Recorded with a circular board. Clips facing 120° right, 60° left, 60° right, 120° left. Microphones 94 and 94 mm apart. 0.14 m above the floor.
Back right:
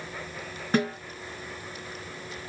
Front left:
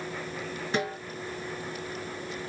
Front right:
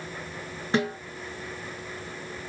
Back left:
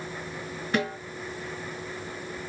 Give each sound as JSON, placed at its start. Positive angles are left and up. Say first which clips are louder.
{"t": 0.7, "sound": "a snare drum", "louder": "back right 5 dB, front right 2 dB", "azimuth_deg": -105, "distance_m": 2.5}